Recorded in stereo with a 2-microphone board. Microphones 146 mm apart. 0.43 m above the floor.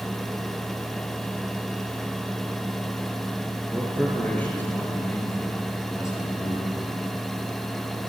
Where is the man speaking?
5° left (ahead or behind), 6 m; by 6.8 s 25° left (ahead or behind), 9 m.